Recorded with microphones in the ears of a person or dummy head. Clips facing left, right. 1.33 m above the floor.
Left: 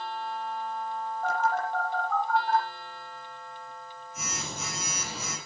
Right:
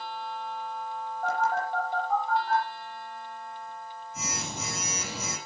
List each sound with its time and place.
1.2 s a phone buzzing: 80° right, 6.5 m